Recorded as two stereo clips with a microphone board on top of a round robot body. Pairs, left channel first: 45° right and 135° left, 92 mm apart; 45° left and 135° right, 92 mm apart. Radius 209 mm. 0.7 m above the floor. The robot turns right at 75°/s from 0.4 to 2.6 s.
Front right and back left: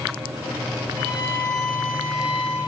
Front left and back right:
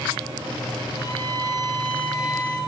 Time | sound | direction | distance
1.0 | a violin | straight ahead | 5.5 m